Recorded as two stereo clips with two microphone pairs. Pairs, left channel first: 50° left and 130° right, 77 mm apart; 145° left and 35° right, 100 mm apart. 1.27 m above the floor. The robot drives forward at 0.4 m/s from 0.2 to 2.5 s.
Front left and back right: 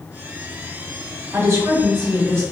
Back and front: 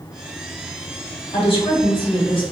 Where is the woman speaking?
175° left, 1.0 m.